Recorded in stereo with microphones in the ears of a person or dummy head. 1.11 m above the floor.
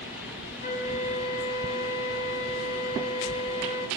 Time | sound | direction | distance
0.6 | a flute | 40° left (ahead or behind) | 3 m